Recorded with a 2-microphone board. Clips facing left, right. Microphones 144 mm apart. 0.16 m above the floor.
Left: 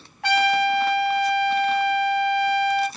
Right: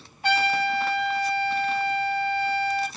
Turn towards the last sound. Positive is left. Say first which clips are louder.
# left 4 dB
turn(degrees=60)  # may be behind; listen again after turning